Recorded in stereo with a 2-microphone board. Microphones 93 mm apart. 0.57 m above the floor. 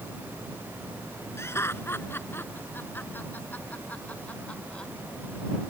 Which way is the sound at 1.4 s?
30° left (ahead or behind).